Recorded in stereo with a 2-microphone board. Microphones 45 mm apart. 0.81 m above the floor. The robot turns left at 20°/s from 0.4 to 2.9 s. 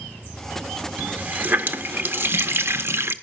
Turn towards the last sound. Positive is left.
turn(degrees=-75)